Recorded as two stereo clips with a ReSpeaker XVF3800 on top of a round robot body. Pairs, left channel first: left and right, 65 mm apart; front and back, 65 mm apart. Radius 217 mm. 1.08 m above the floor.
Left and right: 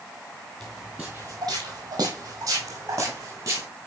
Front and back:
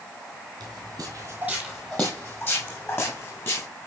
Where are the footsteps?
165° left, 1.7 m; by 3.7 s 45° right, 4 m.